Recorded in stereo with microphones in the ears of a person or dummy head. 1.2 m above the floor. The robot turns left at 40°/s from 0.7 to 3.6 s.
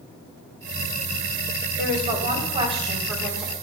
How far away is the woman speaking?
About 3 m.